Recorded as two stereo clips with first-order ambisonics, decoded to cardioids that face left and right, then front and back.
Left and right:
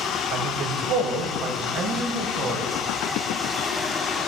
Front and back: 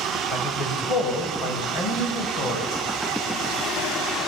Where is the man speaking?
55° right, 6 m; by 2.7 s 40° right, 8 m.